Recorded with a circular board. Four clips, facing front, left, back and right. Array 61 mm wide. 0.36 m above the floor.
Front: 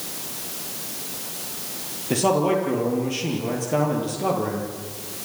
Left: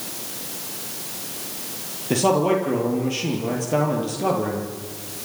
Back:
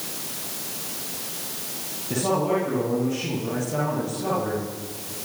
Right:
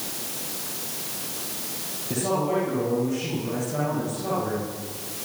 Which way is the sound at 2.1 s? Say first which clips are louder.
Left 6 dB, front 3 dB; 55° left.